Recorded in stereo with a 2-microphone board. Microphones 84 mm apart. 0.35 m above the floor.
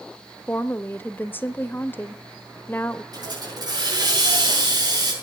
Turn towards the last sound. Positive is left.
turn(degrees=-55)  # may be behind; listen again after turning